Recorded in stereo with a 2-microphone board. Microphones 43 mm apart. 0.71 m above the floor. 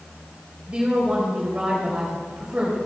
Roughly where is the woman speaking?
Right.